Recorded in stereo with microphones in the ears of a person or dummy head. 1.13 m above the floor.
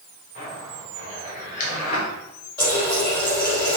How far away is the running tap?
About 3 m.